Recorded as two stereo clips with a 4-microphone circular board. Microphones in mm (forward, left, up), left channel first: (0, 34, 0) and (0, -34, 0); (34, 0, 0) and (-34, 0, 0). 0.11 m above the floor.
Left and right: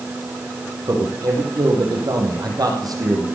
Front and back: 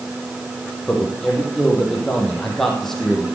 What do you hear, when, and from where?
0.9 s a man speaking: 85° right, 4 m